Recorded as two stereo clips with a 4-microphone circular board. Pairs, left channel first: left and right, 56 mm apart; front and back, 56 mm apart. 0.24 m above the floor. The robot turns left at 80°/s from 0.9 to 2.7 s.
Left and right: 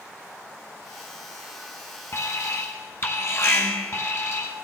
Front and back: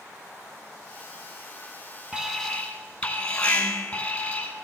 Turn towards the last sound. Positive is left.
turn(degrees=60)